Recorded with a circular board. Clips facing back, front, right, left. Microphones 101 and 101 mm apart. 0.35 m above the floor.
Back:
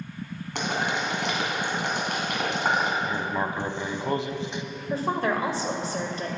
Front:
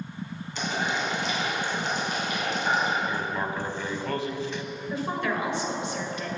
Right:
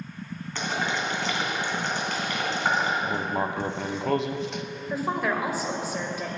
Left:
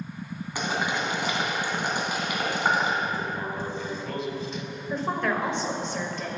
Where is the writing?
110° right, 0.6 m.